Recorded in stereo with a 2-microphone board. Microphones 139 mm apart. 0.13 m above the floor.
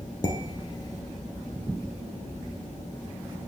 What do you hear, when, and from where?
0.2 s dishes clattering: 30° left (ahead or behind), 1.2 m